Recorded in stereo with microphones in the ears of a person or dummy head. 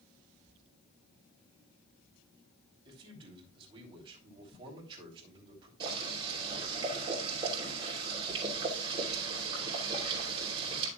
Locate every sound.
2.9 s a man speaking: 25° right (ahead or behind), 3 m
5.8 s boiling: 25° right (ahead or behind), 3 m